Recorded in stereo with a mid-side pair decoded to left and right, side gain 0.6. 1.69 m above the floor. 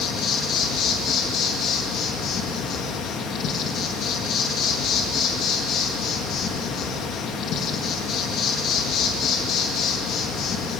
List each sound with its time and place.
0.0 s an insect: 55° left, 2.5 m